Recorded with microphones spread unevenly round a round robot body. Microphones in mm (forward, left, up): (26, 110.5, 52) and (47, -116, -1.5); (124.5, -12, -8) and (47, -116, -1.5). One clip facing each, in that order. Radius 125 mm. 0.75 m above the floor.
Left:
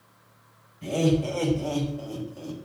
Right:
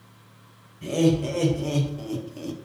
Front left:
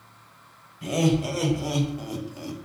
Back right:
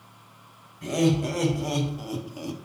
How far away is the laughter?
About 3.5 m.